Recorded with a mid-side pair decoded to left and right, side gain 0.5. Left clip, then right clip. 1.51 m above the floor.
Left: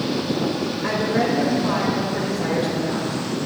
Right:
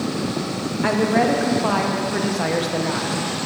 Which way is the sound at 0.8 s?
65° right.